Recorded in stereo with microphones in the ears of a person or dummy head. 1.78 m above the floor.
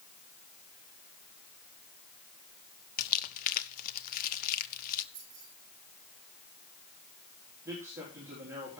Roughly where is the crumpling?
Left.